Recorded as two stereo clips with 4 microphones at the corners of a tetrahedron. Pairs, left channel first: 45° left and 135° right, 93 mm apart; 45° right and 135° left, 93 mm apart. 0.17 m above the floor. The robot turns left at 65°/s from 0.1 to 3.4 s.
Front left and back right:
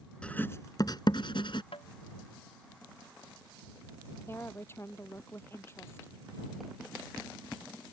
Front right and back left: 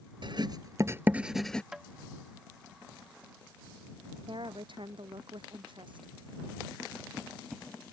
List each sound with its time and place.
0.2 s writing: 125° left; by 1.6 s 30° left
1.7 s tapping: 50° left; by 1.9 s 40° left
4.3 s a woman speaking: 110° left